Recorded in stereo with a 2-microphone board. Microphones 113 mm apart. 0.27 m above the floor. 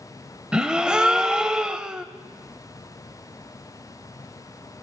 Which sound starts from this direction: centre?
A gasp, at 0.5 s.